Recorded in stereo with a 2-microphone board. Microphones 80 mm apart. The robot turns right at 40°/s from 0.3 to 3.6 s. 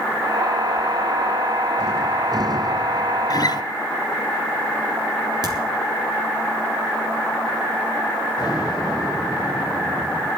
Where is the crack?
55° right (ahead or behind), 3 m.